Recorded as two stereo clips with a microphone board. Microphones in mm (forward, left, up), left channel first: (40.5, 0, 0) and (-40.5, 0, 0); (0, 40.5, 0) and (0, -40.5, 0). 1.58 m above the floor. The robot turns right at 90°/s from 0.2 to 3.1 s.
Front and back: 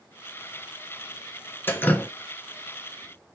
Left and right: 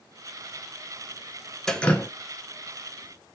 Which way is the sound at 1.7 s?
10° left.